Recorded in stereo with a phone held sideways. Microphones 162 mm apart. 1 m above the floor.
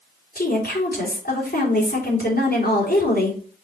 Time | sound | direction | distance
0.3 | a woman speaking | 70° left (ahead or behind) | 3 m